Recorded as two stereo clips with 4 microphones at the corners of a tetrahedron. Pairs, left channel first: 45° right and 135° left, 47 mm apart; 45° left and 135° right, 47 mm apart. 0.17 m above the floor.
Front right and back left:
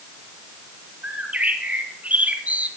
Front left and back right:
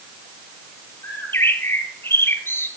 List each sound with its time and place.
1.0 s a bird: 80° left, 1.4 m